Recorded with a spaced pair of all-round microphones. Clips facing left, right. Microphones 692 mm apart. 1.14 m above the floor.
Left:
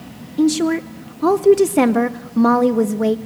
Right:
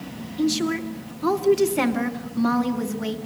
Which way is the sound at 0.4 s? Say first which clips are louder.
Left 7 dB; 70° left (ahead or behind).